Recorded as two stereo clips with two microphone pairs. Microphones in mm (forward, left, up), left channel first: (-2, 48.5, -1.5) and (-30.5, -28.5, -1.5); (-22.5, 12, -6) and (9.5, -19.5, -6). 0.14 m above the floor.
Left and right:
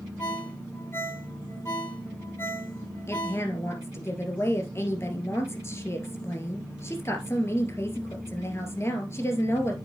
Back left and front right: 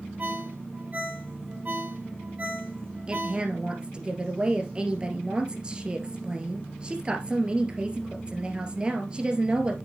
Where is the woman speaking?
20° left, 2 m.